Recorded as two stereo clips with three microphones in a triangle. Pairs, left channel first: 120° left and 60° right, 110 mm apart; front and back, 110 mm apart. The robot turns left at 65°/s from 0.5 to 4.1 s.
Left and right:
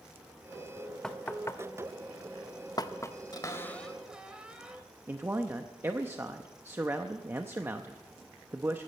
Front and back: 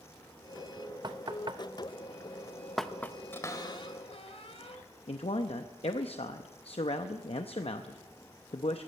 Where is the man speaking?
5° left, 0.6 m.